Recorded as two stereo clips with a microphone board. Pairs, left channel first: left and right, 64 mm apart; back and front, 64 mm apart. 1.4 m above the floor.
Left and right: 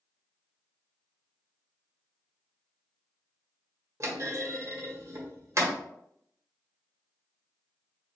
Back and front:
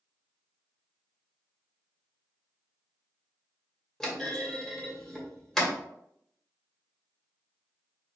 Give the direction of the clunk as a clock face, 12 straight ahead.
3 o'clock.